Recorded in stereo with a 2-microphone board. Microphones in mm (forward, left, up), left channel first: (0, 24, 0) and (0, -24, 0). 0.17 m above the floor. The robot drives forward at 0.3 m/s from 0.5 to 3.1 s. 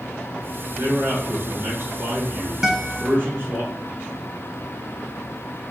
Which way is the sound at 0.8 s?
50° right (ahead or behind).